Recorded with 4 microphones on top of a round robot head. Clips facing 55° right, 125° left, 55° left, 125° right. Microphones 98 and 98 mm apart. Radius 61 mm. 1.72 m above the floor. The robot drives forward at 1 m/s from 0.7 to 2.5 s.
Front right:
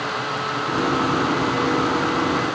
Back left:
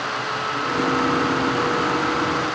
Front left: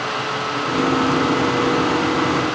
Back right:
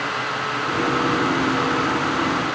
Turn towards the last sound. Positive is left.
No sound to turn to.